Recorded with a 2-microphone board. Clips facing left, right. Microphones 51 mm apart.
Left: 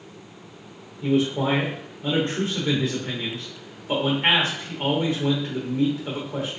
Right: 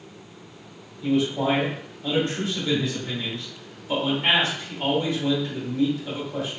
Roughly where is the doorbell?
I don't hear a doorbell.